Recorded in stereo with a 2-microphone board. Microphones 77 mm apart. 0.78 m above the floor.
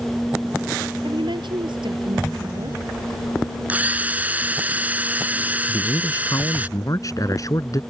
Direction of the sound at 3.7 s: 20° right (ahead or behind).